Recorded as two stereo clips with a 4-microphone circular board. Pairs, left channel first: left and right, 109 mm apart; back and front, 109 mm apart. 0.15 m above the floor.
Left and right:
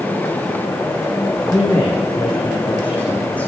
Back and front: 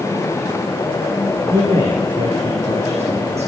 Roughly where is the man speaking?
Ahead.